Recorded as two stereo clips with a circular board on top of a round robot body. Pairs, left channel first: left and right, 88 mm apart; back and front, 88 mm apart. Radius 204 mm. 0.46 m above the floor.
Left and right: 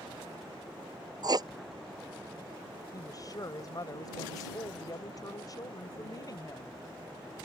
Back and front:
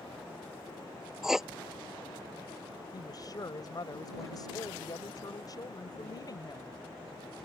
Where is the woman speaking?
135° left.